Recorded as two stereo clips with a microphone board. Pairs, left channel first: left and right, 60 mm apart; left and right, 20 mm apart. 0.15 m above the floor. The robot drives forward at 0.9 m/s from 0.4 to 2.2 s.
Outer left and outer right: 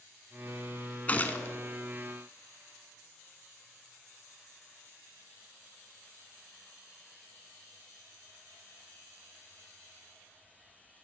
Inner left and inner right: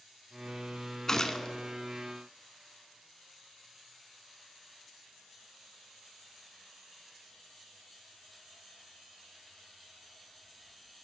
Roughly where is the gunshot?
Left.